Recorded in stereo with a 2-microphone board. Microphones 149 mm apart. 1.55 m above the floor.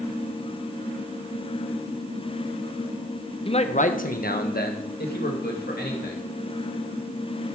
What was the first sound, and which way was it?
A man speaking, 35° left (ahead or behind).